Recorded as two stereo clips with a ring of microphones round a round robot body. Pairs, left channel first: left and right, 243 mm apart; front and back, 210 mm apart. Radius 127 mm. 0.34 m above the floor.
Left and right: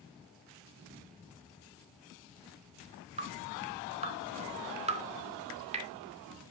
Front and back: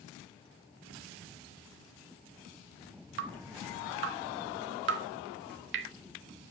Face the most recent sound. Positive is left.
turn(degrees=-155)